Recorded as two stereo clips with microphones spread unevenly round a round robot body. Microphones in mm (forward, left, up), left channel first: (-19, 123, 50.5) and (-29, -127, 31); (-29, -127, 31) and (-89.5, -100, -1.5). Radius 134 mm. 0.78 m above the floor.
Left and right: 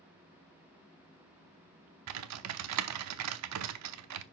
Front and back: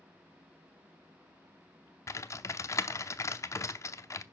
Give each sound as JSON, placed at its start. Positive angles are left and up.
{"t": 2.1, "sound": "typing on a keyboard", "azimuth_deg": -65, "distance_m": 0.7}